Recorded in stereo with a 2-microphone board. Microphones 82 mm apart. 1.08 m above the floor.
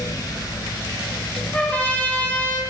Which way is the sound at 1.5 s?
20° left (ahead or behind).